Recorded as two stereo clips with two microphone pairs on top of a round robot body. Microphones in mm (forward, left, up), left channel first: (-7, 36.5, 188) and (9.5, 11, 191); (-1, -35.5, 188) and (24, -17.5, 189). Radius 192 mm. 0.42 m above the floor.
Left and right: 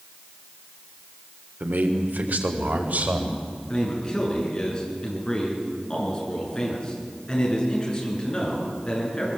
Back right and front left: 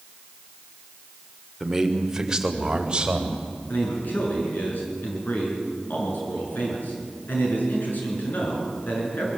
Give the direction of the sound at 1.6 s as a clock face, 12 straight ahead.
2 o'clock.